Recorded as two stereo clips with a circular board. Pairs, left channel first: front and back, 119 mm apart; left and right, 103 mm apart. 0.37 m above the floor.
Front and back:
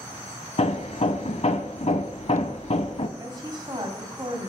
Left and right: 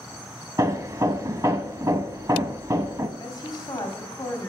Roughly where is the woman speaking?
Behind left.